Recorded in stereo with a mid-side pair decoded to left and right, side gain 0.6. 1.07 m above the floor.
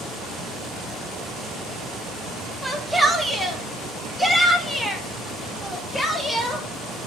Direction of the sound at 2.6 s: 5° right.